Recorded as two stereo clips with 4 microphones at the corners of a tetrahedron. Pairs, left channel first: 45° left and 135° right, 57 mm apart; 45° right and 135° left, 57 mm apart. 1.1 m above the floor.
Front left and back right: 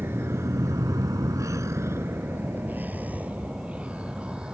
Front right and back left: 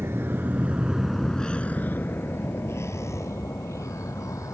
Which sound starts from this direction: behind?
A vehicle, at 0.0 s.